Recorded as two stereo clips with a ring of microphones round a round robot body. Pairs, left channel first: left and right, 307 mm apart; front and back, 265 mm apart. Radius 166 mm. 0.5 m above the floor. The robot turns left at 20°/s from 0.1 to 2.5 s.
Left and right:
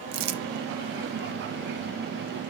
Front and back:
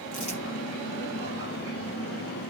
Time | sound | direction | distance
0.1 | crumpling | 65° right | 1.0 m